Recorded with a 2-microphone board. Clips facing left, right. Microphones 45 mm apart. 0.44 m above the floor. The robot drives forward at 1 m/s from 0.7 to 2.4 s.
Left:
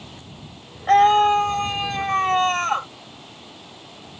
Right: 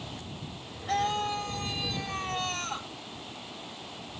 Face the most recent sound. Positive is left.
turn(degrees=55)  # may be behind; listen again after turning